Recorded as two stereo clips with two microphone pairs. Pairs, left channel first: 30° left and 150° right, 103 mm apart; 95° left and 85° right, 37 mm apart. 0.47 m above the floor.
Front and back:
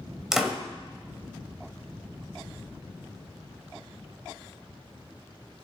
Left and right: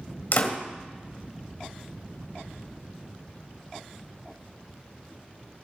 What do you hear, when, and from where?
0.3 s a door slam: 125° left, 1.9 m